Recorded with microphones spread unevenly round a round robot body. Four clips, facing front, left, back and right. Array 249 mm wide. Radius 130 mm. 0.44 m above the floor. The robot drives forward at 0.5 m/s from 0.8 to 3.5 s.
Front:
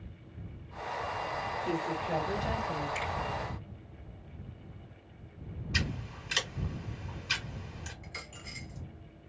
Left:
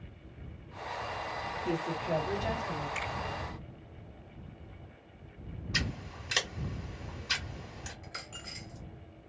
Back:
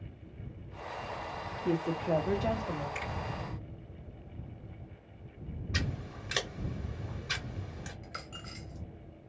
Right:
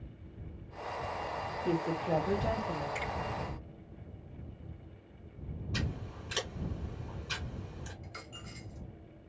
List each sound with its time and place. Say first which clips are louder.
1.6 s a woman speaking: right 2 dB, back 5 dB; 160° right, 1.1 m; by 2.9 s 170° right, 1.5 m
3.0 s a finger snap: even, front 4 dB; 120° right, 2.5 m; by 3.1 s 125° right, 2.5 m
5.7 s scissors: left 2 dB, front 1 dB; 155° left, 1.2 m
8.0 s a dropped coin: left 2 dB, back 2 dB; 150° left, 1.2 m